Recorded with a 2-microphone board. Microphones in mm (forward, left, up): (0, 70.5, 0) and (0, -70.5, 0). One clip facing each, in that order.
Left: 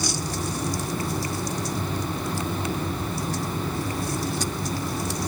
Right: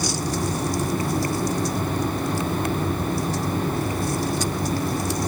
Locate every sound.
Only background noise.